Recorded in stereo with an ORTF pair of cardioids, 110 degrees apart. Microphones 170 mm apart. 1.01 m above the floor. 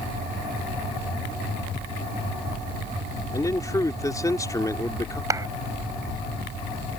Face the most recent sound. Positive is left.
turn(degrees=-20)